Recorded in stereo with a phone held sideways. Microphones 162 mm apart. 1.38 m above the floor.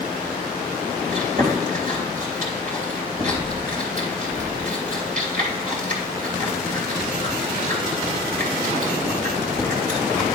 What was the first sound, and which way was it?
Chewing, 55° right (ahead or behind).